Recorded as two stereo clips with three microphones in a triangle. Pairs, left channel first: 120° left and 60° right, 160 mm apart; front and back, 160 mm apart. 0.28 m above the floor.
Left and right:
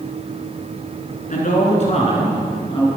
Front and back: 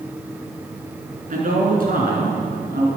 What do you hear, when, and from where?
1.3 s a man speaking: 150° left, 4 m; by 2.9 s 175° left, 4.5 m